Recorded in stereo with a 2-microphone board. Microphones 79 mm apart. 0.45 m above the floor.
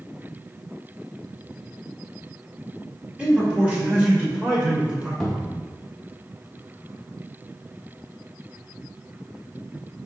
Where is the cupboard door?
Centre (ahead or behind), 0.9 m.